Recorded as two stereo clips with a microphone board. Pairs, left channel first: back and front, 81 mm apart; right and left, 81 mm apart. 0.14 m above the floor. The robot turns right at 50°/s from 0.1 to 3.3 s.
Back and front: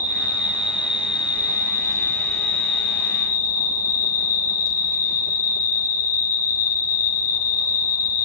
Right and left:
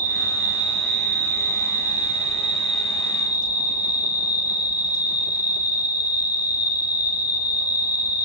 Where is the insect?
155° left, 2.5 m; by 8.2 s 45° right, 2.5 m.